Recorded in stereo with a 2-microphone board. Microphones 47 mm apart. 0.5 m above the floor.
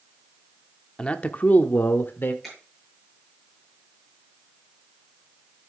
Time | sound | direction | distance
1.0 | a man speaking | 25° left (ahead or behind) | 0.7 m
2.4 | a finger snap | 5° left (ahead or behind) | 8 m